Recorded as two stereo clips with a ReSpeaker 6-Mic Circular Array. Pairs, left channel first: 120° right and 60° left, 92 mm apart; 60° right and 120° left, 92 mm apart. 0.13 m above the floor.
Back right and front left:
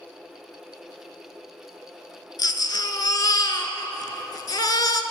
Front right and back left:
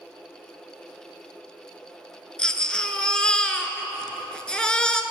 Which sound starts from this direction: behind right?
A baby crying, at 2.4 s.